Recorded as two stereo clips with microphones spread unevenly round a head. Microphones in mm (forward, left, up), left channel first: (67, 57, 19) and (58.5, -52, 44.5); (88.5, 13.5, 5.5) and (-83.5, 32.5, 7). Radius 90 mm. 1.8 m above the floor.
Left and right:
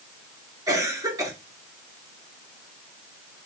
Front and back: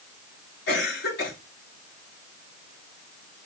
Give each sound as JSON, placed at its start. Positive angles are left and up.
{"t": 0.7, "sound": "a cough", "azimuth_deg": -40, "distance_m": 4.5}